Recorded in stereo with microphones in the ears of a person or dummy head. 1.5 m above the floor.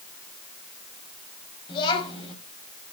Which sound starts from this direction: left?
A child speaking, at 1.7 s.